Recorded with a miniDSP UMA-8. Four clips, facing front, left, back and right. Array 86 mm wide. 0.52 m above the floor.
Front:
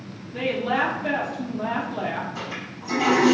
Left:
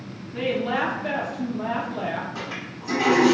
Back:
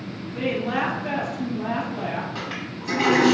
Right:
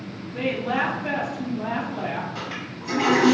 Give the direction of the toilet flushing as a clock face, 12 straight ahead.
6 o'clock.